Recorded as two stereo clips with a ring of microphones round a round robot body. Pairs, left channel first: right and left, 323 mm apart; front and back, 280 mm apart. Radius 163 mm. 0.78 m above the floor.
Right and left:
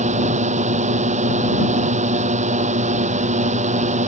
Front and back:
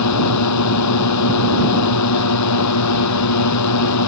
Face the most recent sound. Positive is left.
turn(degrees=20)